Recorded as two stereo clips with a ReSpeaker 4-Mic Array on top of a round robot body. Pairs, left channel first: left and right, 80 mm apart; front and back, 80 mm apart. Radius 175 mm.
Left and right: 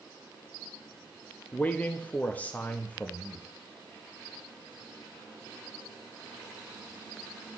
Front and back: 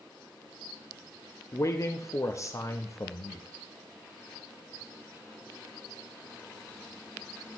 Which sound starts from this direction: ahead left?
A man speaking, at 1.5 s.